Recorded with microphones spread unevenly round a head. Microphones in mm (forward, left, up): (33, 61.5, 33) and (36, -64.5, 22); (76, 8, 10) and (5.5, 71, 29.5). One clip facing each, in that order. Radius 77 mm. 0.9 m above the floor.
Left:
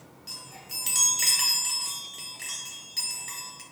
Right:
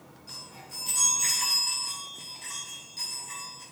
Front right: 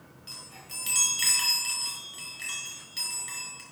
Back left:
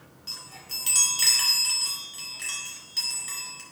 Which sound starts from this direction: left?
A chime, at 0.3 s.